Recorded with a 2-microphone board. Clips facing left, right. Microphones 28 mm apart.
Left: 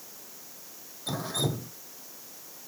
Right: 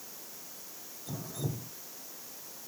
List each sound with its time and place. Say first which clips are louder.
1.1 s dripping: left 8 dB; 75° left (ahead or behind)